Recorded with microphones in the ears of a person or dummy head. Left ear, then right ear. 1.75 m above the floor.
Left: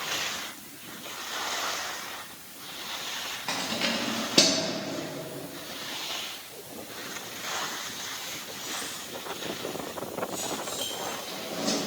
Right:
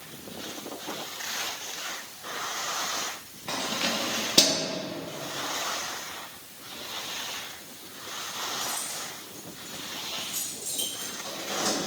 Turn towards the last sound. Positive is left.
turn(degrees=-80)